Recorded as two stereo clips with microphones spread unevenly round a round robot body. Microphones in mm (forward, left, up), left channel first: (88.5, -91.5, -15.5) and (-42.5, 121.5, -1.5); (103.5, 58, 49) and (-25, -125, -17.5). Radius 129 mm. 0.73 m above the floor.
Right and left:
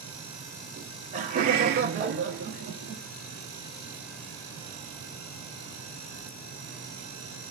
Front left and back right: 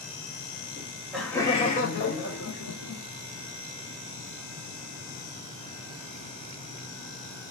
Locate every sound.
0.8 s laughter: 170° right, 0.8 m; by 3.0 s 70° left, 1.1 m